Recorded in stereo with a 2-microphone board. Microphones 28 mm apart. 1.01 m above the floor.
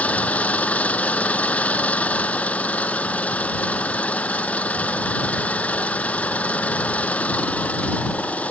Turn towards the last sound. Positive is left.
turn(degrees=55)  # may be behind; listen again after turning